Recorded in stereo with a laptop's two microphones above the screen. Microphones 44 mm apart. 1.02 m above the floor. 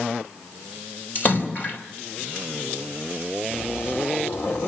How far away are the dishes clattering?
No dishes clattering in this recording.